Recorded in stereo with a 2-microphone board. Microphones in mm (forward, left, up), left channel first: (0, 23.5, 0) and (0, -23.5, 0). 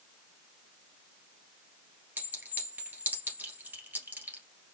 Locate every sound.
2.2 s a clink: 40° right (ahead or behind), 2.0 m